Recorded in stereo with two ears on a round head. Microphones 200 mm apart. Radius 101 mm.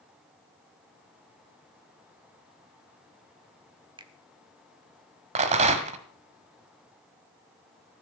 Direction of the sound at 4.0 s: 20° right (ahead or behind).